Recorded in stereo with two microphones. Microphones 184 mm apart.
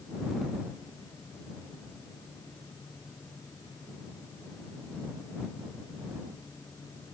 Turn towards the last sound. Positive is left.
No sound to turn to.